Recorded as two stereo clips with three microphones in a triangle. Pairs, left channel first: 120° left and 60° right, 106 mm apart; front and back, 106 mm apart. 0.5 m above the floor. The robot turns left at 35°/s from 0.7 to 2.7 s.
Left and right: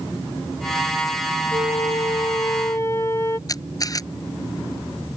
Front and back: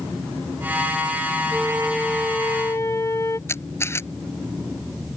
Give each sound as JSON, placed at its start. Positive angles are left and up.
{"t": 1.5, "sound": "a flute", "azimuth_deg": 100}
{"t": 3.5, "sound": "a camera shutter", "azimuth_deg": 65}